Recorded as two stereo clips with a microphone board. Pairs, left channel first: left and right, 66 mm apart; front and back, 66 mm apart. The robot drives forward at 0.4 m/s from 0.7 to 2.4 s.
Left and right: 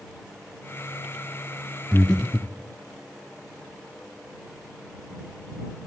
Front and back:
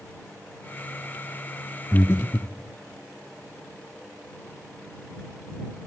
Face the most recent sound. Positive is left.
turn(degrees=20)